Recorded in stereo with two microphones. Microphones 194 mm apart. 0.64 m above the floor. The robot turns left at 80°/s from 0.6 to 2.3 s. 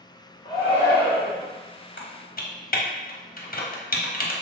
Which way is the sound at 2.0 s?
75° left (ahead or behind).